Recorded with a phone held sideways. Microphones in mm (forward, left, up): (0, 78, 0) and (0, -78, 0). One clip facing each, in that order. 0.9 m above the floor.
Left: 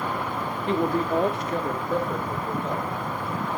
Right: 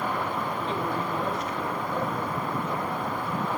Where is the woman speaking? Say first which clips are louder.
Left 10 dB; 65° left (ahead or behind), 1.4 m; by 2.9 s 80° left, 4 m.